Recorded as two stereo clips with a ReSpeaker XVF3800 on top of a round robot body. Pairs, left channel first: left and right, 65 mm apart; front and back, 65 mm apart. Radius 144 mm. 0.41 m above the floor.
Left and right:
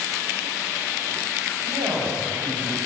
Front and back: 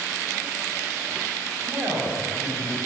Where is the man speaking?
130° right, 3.5 m.